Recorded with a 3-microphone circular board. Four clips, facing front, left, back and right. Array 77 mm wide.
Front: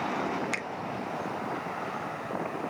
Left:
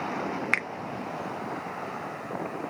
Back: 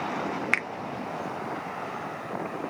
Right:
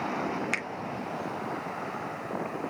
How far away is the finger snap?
About 0.5 m.